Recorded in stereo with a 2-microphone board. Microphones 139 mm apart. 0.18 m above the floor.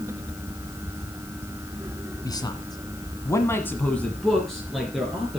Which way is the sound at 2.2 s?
25° left (ahead or behind).